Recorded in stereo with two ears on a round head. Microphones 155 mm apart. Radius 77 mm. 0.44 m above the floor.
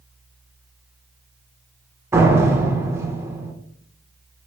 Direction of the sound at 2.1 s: 15° right (ahead or behind).